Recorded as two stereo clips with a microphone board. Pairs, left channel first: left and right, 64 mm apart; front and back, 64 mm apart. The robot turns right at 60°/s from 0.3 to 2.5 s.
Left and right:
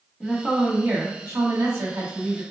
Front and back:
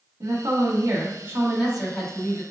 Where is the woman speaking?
170° left, 1.7 m; by 2.4 s 60° right, 1.7 m.